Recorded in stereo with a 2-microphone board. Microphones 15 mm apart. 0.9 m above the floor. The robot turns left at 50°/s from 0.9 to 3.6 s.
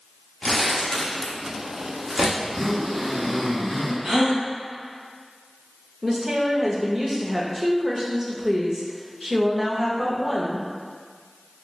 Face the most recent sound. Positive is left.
turn(degrees=-30)  # may be behind; listen again after turning